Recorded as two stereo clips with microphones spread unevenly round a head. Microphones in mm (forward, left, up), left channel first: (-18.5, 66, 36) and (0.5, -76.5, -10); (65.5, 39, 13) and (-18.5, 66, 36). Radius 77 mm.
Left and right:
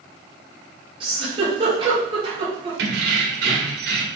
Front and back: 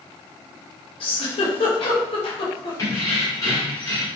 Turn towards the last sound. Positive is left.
turn(degrees=-90)